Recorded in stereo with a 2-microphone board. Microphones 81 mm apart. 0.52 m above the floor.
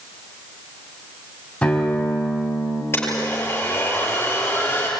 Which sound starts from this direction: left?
A blender, at 2.9 s.